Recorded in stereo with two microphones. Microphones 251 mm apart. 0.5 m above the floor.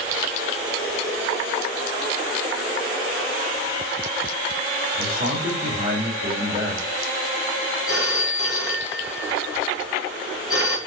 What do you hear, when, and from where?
4.9 s a man speaking: 40° right (ahead or behind), 7.5 m
7.9 s a phone ringing: 60° left (ahead or behind), 2 m